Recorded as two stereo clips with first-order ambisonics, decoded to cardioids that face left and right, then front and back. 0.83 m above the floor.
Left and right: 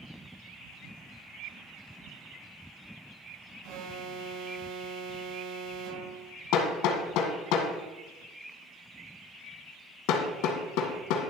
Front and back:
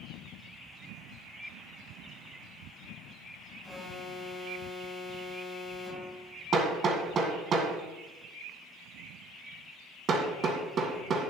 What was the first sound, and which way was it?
An alarm, 80° right.